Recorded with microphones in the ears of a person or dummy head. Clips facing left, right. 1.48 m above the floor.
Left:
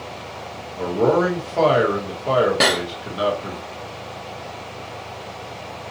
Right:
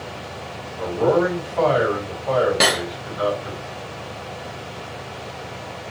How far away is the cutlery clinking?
About 0.6 m.